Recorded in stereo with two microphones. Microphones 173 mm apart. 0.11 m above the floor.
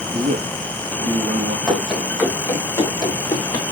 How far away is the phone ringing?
No phone ringing in this recording.